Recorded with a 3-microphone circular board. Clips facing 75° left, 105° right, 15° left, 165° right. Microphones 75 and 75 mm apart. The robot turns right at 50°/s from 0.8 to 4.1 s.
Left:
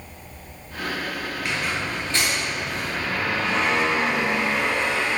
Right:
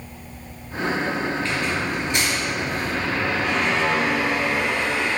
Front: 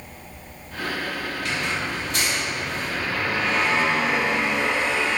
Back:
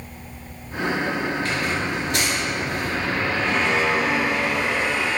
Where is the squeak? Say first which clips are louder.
Right 3 dB, back 3 dB; 145° left, 0.9 m; by 5.2 s 80° right, 0.9 m.